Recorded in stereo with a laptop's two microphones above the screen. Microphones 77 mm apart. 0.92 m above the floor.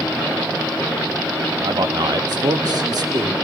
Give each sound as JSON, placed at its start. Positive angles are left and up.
{"t": 1.6, "sound": "a man speaking", "side_deg": -60, "distance_m": 1.6}